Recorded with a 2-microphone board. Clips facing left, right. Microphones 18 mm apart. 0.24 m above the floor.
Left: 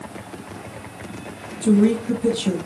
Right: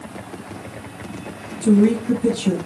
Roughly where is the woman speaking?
Centre.